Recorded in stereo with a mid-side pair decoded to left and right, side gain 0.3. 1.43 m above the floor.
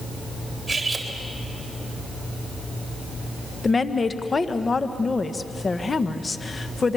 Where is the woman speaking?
40° left, 1.4 m.